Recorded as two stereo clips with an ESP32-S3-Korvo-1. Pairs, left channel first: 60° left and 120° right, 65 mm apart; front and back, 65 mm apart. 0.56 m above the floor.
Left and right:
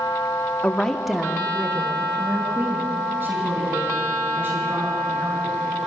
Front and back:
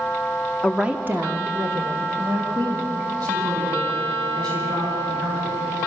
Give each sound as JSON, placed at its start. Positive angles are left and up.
{"t": 0.6, "sound": "a woman speaking", "azimuth_deg": 80, "distance_m": 1.0}